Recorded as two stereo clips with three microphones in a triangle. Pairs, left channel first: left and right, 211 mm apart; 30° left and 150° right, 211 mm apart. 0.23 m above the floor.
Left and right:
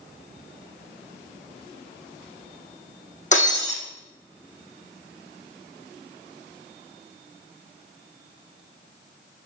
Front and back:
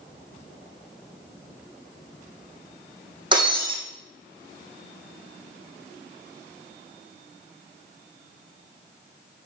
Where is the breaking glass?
145° left, 3 m.